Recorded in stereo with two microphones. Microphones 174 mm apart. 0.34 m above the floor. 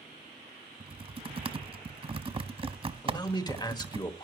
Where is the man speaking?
25° left (ahead or behind), 1.0 m.